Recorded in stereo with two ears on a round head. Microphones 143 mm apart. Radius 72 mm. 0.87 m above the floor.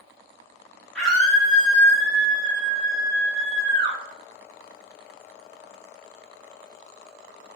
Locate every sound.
0.9 s a scream: 5° left (ahead or behind), 0.9 m; by 4.0 s 30° right (ahead or behind), 1.2 m